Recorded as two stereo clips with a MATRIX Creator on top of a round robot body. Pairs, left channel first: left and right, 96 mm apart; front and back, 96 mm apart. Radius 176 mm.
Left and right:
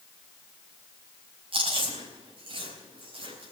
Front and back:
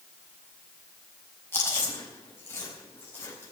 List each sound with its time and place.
1.5 s chewing: 65° right, 4.5 m